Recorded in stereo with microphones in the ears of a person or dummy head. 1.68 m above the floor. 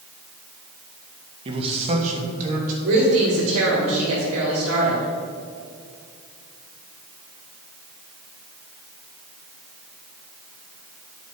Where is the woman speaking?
85° right, 5 m.